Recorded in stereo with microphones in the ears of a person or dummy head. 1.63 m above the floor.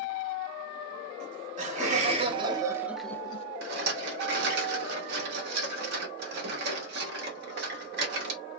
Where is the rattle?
65° right (ahead or behind), 1.1 m.